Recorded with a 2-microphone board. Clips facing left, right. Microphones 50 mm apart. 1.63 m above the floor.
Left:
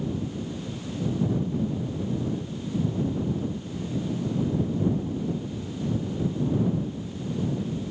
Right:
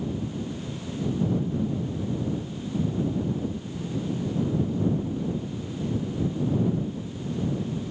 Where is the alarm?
No alarm in this recording.